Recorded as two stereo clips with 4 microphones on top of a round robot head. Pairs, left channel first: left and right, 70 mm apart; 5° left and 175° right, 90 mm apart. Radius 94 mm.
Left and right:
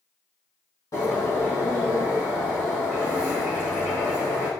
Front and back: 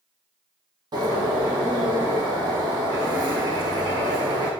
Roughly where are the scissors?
I don't hear scissors.